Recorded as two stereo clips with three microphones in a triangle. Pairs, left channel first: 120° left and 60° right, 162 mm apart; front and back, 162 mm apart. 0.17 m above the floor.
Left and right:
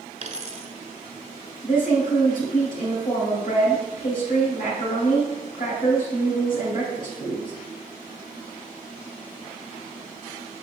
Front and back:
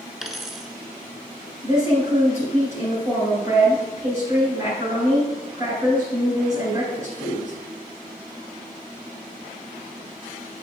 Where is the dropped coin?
90° right, 0.8 m.